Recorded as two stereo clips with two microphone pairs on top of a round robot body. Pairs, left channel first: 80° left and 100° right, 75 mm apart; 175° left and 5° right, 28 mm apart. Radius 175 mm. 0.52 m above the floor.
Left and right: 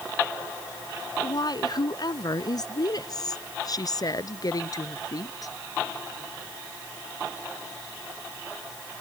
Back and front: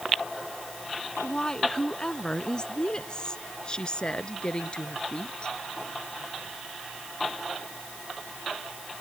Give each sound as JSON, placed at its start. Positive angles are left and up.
{"t": 1.2, "sound": "a woman speaking", "azimuth_deg": 110}